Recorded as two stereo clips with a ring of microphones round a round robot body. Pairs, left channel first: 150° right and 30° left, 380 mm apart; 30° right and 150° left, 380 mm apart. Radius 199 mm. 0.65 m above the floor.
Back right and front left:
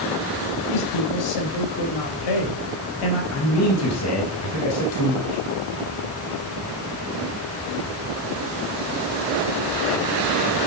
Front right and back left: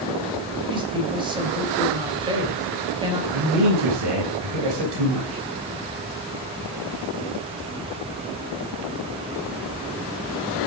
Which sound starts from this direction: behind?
A man speaking, at 3.3 s.